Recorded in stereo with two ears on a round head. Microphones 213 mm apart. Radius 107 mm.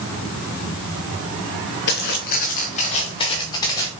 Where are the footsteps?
45° left (ahead or behind), 4 m; by 3.9 s 10° left (ahead or behind), 5 m.